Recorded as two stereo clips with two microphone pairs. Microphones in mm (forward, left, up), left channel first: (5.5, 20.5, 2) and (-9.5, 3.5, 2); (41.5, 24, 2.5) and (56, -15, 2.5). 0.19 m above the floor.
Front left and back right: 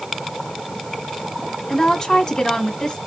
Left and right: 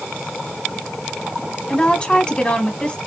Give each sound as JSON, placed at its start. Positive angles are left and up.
{"t": 1.7, "sound": "a woman speaking", "azimuth_deg": 85, "distance_m": 1.6}